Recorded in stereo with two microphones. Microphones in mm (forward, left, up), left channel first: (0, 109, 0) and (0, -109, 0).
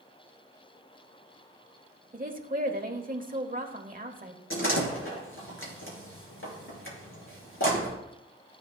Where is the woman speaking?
40° right (ahead or behind), 1.1 m.